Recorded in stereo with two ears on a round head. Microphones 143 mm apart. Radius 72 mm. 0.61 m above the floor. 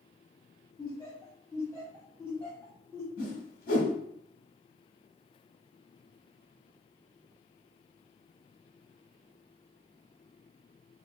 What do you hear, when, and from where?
0.8 s laughter: 5° left (ahead or behind), 1.1 m
3.2 s a whoosh: 60° left (ahead or behind), 1.2 m